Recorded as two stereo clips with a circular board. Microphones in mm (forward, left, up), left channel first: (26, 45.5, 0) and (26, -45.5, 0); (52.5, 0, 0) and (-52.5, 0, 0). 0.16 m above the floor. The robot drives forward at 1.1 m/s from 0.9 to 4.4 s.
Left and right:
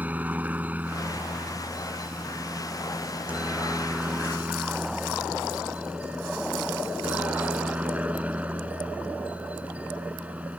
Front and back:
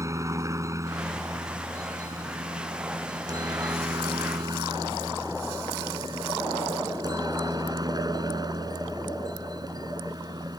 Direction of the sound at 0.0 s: 145° right.